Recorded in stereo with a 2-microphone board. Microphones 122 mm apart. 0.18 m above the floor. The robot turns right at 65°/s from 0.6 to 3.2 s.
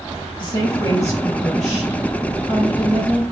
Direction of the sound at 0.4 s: 115° left.